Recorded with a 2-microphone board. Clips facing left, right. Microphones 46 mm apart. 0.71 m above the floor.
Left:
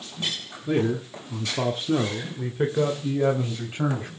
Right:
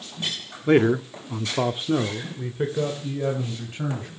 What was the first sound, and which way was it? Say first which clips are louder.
A man speaking: right 6 dB; 70° right (ahead or behind).